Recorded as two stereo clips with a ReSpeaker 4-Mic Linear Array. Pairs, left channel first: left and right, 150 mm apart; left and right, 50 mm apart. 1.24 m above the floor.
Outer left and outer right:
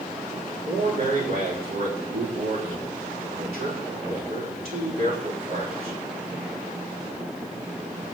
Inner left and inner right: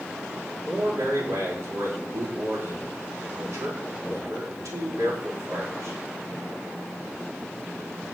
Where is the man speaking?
85° right, 4.5 m.